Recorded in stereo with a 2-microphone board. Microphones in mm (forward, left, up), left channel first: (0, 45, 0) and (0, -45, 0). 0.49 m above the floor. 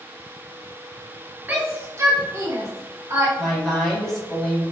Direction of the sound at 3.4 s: 5° left (ahead or behind).